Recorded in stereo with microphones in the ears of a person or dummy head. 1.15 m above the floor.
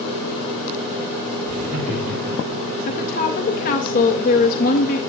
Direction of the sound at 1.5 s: 50° right (ahead or behind).